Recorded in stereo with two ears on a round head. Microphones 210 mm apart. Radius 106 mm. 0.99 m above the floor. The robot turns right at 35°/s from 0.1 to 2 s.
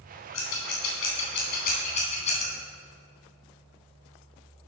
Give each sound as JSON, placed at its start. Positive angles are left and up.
{"t": 0.3, "sound": "scissors", "side_deg": 85, "distance_m": 3.5}